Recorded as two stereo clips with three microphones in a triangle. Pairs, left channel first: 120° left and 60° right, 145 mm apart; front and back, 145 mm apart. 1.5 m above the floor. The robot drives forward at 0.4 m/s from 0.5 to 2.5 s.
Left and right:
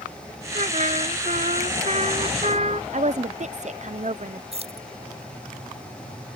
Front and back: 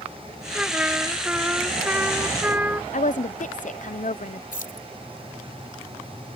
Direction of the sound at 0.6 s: 100° right.